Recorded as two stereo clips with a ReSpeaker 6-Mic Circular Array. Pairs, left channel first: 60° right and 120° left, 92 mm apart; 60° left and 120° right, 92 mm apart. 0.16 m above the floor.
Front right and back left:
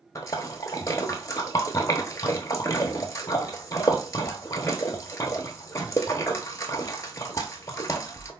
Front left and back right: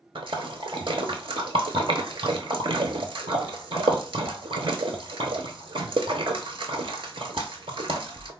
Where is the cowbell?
No cowbell in this recording.